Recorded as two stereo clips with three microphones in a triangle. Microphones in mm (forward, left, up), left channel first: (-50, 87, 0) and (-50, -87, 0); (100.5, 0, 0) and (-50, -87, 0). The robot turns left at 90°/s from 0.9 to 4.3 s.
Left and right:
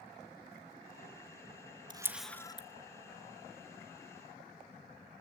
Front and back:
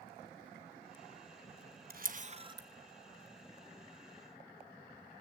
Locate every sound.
1.9 s a camera shutter: 150° right, 1.0 m; by 2.7 s 140° left, 1.0 m